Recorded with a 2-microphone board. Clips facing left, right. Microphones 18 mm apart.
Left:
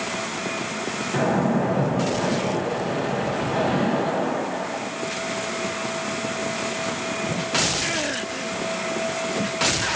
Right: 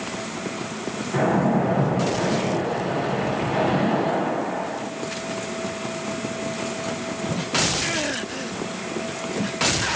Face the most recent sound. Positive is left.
turn(degrees=-10)  # may be behind; listen again after turning